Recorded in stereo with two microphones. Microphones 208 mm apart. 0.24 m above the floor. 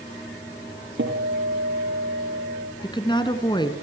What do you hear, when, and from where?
1.0 s a guitar: 65° right (ahead or behind), 4 m
2.8 s a woman speaking: 20° left (ahead or behind), 3 m